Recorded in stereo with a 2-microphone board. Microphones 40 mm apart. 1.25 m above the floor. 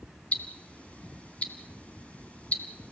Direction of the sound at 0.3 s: 35° left (ahead or behind).